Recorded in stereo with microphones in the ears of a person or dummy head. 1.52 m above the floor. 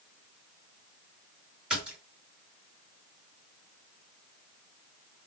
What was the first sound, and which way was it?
A splash, 10° right (ahead or behind).